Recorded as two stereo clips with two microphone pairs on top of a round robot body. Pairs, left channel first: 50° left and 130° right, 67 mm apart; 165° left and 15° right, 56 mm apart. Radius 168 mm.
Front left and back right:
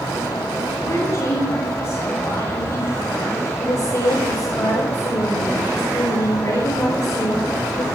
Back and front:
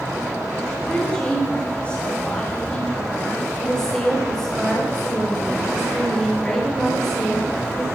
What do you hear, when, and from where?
0.8 s a woman speaking: 90° left, 6.5 m; by 3.5 s 120° left, 7.5 m
3.6 s a woman speaking: 90° left, 6 m